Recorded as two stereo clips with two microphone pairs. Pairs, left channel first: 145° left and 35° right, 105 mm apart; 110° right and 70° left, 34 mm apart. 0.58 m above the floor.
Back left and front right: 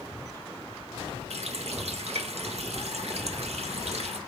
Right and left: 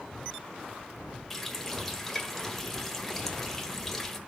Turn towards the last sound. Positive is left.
turn(degrees=-35)